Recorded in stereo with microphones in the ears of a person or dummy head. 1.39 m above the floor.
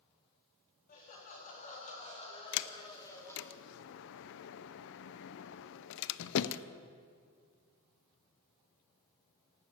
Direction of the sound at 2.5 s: 70° left (ahead or behind).